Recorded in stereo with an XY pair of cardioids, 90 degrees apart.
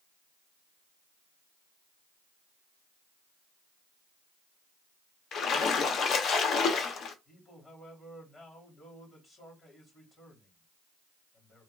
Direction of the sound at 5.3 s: 65° left.